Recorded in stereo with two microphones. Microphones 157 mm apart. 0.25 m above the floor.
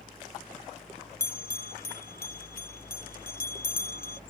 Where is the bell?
80° left.